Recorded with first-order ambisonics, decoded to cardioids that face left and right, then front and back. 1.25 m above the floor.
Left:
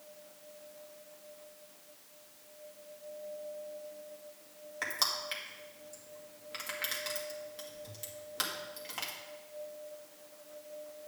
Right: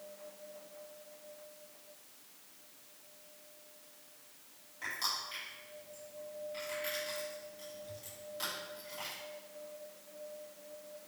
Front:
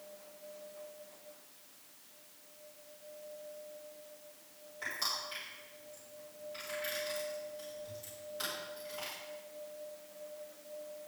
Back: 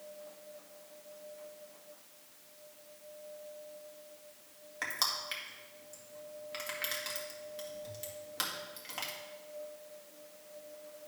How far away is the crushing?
About 2 m.